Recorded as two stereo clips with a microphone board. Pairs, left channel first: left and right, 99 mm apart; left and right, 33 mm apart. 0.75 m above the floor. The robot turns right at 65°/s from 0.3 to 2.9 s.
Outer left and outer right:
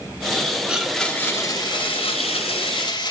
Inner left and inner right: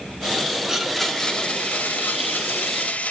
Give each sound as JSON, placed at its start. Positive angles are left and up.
{"t": 0.7, "sound": "a blender", "azimuth_deg": -15, "distance_m": 1.1}